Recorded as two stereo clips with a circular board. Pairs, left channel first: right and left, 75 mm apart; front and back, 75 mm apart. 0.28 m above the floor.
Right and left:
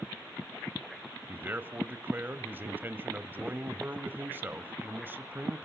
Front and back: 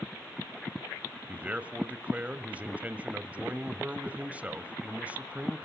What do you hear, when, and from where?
1.3 s a man speaking: 125° left, 1.4 m